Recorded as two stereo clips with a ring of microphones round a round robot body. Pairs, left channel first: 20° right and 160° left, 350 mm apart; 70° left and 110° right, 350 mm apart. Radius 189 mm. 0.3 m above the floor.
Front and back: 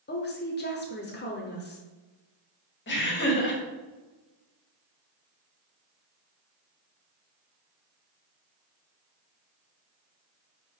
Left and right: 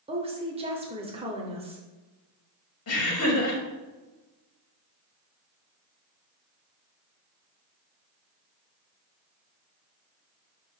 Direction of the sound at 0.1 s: 50° right.